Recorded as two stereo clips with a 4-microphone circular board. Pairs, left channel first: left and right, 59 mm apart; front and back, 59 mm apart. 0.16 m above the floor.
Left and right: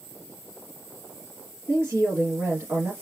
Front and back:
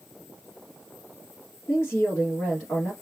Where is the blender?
I don't hear a blender.